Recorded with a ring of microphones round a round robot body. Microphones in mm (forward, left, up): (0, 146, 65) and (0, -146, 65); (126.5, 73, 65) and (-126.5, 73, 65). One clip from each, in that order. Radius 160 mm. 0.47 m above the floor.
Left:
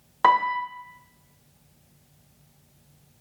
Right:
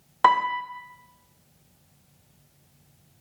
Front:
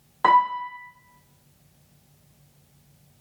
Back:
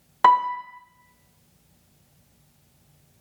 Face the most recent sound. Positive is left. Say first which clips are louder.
# even, back 1 dB
turn(degrees=-155)